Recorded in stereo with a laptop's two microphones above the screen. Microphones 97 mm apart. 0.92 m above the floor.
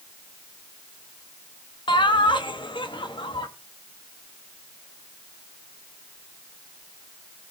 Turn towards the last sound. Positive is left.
turn(degrees=55)  # may be behind; listen again after turning